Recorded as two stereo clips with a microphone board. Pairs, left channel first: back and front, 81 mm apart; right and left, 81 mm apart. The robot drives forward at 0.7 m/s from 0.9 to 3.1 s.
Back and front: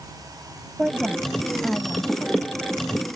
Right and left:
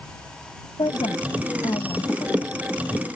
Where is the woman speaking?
80° right; by 2.6 s 105° right.